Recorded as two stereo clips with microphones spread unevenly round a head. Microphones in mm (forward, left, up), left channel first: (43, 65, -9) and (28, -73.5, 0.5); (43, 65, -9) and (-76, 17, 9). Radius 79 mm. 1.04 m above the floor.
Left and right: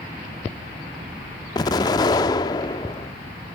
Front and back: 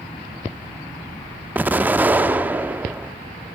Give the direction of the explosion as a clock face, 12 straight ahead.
7 o'clock.